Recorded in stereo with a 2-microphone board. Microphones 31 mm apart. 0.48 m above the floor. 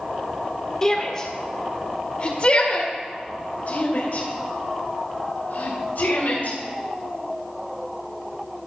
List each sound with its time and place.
0.8 s a shout: 20° left (ahead or behind), 1.7 m; by 6.6 s 70° left (ahead or behind), 3.5 m